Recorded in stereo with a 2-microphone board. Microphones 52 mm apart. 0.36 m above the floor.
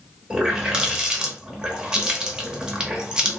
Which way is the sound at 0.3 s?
15° right (ahead or behind).